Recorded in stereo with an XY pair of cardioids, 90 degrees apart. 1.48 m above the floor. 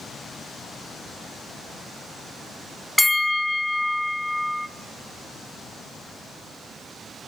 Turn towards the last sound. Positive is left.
turn(degrees=5)